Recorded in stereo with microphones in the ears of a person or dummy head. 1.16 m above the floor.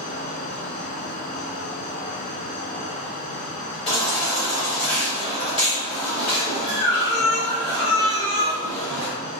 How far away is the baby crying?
About 1.3 m.